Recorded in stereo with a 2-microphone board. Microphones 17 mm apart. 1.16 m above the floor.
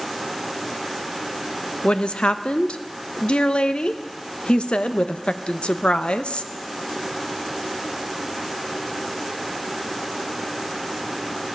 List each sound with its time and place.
1.8 s a woman speaking: 75° left (ahead or behind), 0.6 m